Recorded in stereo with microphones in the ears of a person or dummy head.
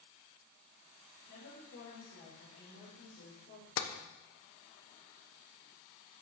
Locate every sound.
1.3 s a woman speaking: 75° left (ahead or behind), 5.5 m
3.8 s tapping: 75° left (ahead or behind), 1.1 m